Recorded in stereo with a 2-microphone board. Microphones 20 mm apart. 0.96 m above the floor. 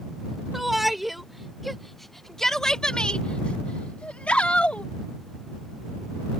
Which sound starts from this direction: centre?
A shout, at 0.5 s.